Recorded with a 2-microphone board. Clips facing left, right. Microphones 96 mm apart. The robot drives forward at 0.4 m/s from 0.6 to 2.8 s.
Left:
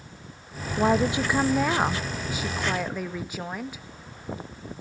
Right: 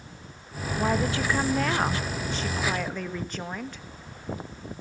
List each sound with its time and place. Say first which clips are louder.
0.8 s a woman speaking: left 4 dB; 20° left (ahead or behind), 0.5 m; by 3.8 s 10° left (ahead or behind), 1.3 m